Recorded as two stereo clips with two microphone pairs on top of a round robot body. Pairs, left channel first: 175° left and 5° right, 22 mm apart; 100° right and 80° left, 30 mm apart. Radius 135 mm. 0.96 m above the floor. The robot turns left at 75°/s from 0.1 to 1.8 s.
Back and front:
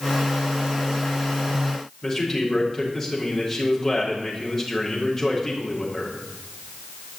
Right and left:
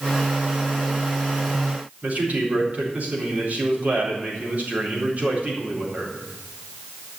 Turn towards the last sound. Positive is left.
turn(degrees=105)